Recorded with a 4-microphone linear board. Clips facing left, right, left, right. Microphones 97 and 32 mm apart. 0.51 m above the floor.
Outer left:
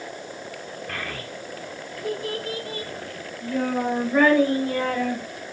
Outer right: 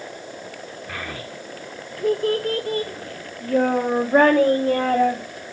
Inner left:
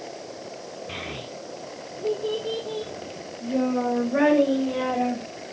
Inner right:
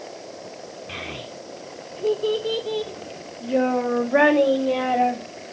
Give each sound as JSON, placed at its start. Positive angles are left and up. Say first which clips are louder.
{"t": 0.9, "sound": "a child speaking", "louder": "outer right 1 dB, inner right 2 dB", "side_deg": -10, "distance_m": 1.0}